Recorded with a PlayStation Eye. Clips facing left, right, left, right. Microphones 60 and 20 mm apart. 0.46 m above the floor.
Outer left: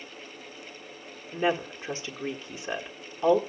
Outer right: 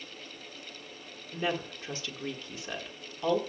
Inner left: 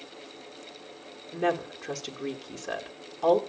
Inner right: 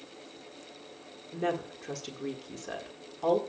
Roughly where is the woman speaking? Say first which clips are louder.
Outer left 6 dB, inner left 4 dB; left.